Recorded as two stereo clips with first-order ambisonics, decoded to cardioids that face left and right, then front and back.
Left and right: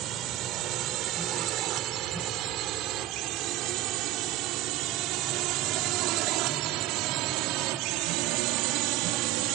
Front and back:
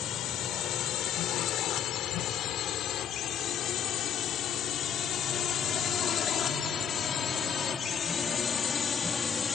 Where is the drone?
50° right; by 9.6 s 75° right.